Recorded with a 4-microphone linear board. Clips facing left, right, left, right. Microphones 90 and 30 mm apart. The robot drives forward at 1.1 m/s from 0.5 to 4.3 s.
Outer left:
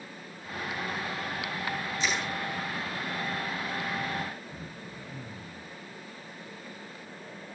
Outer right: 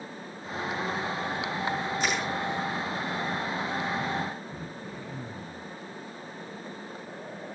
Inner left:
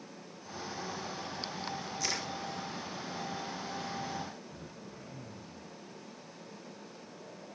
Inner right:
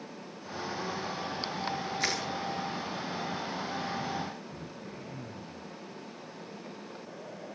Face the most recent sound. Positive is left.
turn(degrees=-70)  # may be behind; listen again after turning